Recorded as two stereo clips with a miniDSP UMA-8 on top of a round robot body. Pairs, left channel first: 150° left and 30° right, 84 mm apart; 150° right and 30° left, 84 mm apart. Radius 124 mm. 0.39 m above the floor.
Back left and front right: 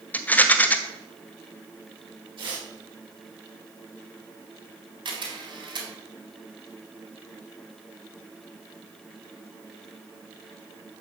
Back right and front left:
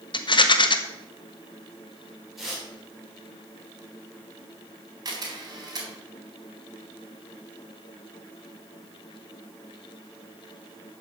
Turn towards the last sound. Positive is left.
turn(degrees=-10)